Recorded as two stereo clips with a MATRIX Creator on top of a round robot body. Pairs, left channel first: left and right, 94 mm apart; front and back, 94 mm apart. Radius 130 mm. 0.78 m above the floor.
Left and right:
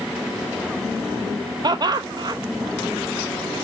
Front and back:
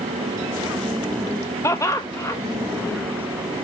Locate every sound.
1.6 s laughter: 55° right, 0.9 m